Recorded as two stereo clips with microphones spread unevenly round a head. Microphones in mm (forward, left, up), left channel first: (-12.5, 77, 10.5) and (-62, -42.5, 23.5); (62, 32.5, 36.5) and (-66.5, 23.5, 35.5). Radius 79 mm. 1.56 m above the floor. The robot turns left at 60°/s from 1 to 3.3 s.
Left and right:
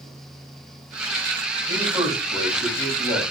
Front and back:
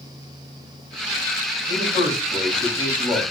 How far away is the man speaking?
About 5 m.